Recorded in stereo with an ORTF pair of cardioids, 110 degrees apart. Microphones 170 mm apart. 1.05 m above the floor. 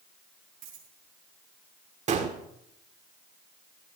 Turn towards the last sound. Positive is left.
turn(degrees=-45)